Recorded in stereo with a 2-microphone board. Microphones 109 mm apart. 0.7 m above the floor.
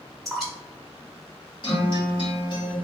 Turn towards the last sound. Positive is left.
turn(degrees=45)  # may be behind; listen again after turning